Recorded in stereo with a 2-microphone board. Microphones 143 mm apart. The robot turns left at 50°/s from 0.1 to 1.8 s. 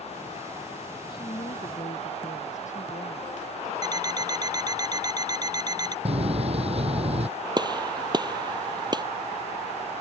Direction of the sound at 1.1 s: 150° left.